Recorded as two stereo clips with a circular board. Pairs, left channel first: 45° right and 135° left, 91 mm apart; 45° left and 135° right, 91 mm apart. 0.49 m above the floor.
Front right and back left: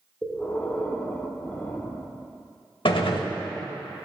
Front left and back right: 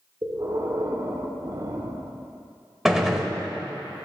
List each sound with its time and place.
0.2 s breathing: 110° right, 1.0 m
2.9 s a gunshot: 50° right, 1.0 m